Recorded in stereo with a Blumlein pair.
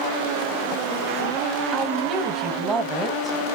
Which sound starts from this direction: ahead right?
A woman speaking, at 1.7 s.